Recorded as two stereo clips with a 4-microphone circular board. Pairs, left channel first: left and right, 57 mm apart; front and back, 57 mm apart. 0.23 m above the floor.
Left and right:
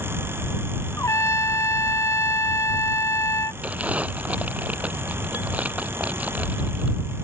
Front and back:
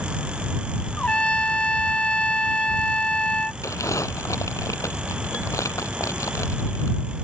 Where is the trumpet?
70° left.